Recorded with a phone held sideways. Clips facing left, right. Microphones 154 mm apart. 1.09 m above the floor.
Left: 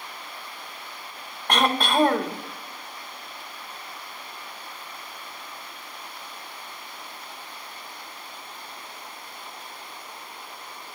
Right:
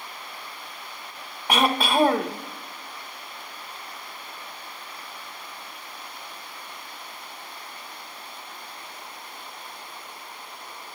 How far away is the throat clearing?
About 0.7 m.